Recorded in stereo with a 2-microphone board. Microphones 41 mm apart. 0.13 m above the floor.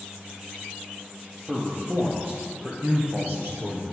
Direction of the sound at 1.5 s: 30° right (ahead or behind).